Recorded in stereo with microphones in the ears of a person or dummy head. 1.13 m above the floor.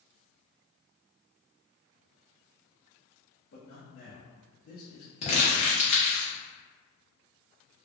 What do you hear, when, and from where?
3.5 s a man speaking: 50° left (ahead or behind), 0.9 m
5.2 s crumpling: 40° left (ahead or behind), 1.1 m